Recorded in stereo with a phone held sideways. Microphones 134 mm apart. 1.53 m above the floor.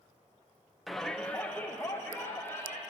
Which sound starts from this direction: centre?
A shout, at 0.9 s.